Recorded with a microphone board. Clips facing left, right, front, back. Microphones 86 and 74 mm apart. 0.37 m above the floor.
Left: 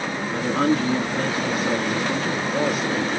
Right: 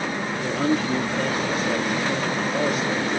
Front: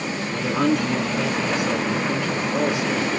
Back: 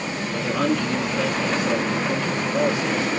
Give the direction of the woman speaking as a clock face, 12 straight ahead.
9 o'clock.